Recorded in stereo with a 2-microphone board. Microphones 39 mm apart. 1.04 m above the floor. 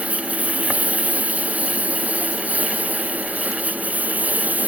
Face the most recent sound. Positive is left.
turn(degrees=-50)  # may be behind; listen again after turning